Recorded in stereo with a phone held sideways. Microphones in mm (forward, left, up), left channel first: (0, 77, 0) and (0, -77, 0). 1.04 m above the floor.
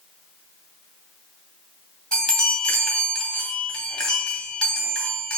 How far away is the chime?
About 2 m.